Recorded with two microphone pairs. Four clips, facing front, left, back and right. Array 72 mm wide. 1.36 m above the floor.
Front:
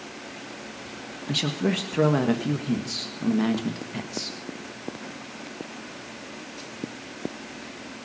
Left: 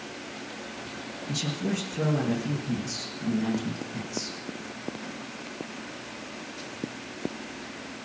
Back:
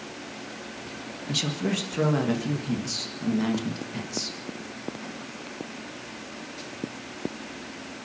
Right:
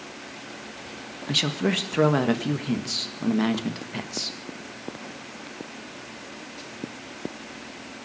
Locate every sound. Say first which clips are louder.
1.3 s a man speaking: right 6 dB, front 3 dB; 80° right, 1.7 m